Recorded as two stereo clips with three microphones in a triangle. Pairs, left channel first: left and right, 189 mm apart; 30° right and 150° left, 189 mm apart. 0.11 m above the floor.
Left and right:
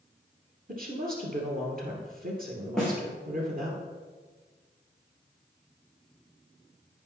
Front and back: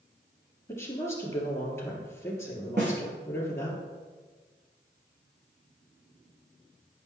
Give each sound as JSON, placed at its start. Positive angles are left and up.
{"t": 0.7, "sound": "a woman speaking", "azimuth_deg": -100, "distance_m": 2.5}
{"t": 2.8, "sound": "a snare drum", "azimuth_deg": 175, "distance_m": 3.0}